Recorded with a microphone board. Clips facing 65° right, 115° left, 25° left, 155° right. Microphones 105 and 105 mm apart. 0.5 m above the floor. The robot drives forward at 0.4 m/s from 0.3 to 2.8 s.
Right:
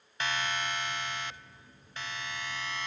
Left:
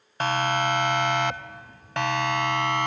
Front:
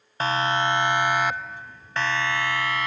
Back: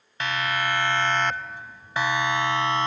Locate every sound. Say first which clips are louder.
0.2 s a siren: left 10 dB, front 4 dB; 75° left; by 2.9 s 140° left